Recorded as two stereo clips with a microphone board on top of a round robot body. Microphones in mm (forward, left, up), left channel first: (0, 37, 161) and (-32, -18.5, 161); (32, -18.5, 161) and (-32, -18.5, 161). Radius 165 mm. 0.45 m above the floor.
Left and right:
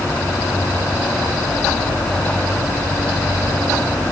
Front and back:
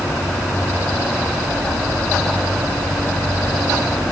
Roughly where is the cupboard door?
No cupboard door in this recording.